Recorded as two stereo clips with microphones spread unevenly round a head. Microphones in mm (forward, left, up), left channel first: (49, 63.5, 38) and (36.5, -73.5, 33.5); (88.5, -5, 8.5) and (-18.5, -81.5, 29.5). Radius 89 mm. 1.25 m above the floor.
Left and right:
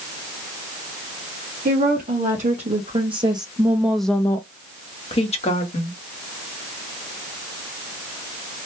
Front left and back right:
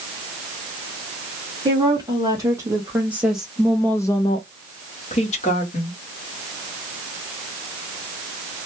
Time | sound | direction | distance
1.6 | a woman speaking | 85° right | 1.3 m